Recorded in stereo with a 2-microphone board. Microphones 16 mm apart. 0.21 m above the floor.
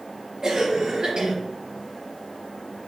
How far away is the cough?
About 4 m.